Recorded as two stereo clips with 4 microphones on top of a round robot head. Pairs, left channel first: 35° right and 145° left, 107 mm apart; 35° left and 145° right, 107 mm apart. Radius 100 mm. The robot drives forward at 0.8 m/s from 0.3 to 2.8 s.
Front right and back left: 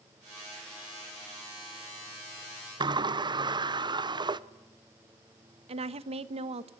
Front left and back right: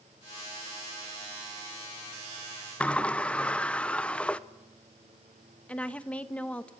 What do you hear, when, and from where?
2.8 s a sliding door: 110° left, 1.0 m
5.7 s a woman speaking: 115° left, 1.2 m